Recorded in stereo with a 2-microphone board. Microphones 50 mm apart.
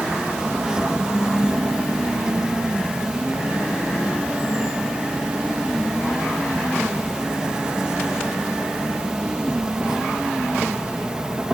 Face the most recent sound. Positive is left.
turn(degrees=-15)  # may be behind; listen again after turning